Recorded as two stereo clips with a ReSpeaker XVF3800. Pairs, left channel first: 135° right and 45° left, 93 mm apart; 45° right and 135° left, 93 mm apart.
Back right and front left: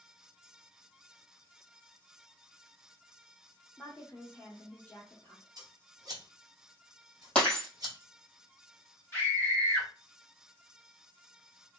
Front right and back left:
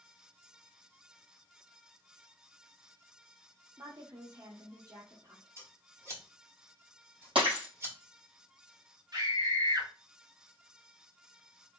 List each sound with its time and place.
3.8 s a woman speaking: 155° left, 1.4 m
5.6 s scissors: 80° left, 1.6 m
7.3 s breaking glass: 145° left, 3 m
9.1 s a scream: 165° left, 2 m